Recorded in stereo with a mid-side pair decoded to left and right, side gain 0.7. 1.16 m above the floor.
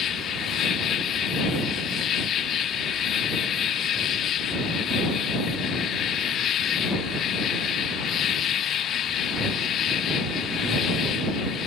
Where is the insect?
45° left.